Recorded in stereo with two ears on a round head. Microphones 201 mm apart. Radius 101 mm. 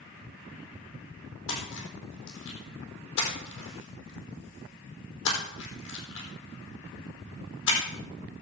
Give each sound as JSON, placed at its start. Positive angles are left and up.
{"t": 1.5, "sound": "a splash", "side_deg": 55, "distance_m": 3.5}